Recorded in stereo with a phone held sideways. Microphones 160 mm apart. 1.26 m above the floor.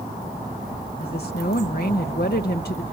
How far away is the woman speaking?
About 0.7 m.